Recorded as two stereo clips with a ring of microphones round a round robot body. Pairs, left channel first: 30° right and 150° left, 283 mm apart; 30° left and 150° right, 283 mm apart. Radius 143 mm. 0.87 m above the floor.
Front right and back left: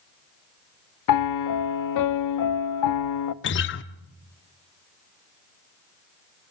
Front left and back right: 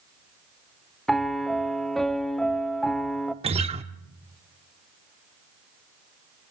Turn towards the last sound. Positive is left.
turn(degrees=-80)